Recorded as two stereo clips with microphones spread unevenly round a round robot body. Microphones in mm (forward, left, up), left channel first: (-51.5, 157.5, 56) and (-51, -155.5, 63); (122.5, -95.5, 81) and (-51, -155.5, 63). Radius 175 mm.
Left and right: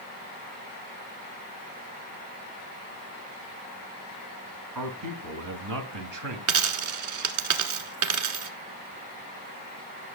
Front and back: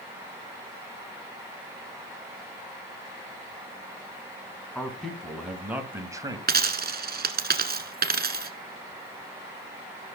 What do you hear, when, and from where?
4.8 s a man speaking: 65° right, 3 m; by 6.4 s 95° right, 2 m
6.5 s a dropped coin: 125° right, 1.3 m